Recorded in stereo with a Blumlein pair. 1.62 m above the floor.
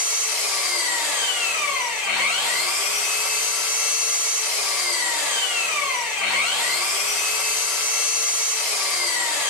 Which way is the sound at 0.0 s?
35° left.